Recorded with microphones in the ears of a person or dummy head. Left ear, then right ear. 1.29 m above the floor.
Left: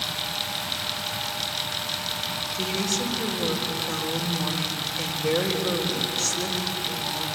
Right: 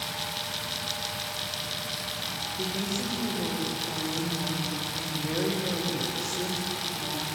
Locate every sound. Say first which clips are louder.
2.5 s a woman speaking: left 7 dB; 75° left (ahead or behind), 4.5 m